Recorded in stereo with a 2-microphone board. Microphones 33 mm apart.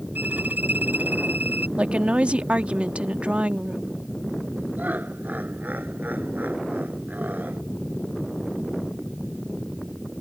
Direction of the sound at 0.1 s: 65° right (ahead or behind).